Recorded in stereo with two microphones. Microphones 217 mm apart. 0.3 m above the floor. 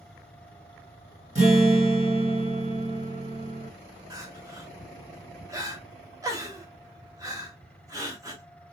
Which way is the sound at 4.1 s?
15° right (ahead or behind).